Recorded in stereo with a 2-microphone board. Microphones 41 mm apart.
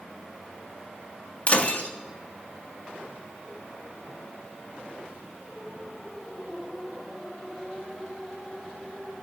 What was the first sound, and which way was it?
Breaking glass, 35° left (ahead or behind).